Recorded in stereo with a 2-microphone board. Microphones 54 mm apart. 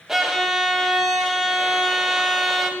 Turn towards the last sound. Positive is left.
turn(degrees=-5)  # may be behind; listen again after turning